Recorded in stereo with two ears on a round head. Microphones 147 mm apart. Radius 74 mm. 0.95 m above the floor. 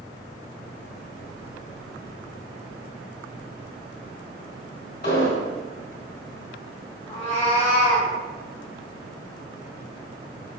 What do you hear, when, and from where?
5.0 s an explosion: 60° left (ahead or behind), 1.9 m
7.1 s a cat meowing: 40° left (ahead or behind), 1.1 m